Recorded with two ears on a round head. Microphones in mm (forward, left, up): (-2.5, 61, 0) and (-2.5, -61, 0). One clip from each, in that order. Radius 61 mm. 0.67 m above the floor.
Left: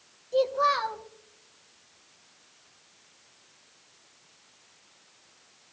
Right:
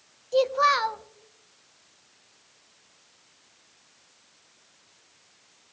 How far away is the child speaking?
About 0.6 m.